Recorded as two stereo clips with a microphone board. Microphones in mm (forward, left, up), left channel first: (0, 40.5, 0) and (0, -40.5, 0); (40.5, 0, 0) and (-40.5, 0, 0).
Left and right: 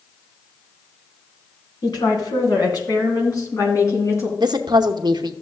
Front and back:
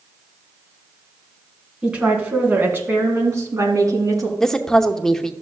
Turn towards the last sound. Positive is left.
turn(degrees=-85)